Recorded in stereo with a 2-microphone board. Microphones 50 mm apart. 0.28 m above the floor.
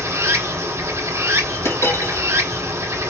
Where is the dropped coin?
75° left (ahead or behind), 1.8 m.